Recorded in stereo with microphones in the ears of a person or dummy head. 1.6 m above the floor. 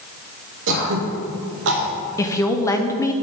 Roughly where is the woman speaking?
Centre.